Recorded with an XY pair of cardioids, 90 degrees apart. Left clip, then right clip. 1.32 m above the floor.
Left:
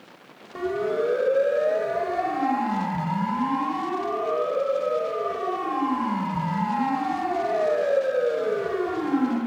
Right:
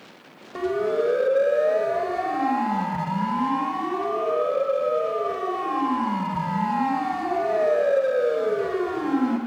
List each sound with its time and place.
0.6 s a siren: 20° right, 2.5 m